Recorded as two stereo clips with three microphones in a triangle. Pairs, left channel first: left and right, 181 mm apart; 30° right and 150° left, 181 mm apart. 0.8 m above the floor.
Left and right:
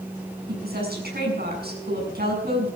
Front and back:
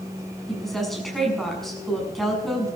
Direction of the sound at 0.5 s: 120° right.